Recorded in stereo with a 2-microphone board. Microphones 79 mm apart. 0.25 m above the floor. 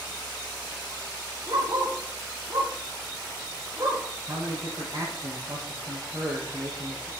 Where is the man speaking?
70° right (ahead or behind), 4 m.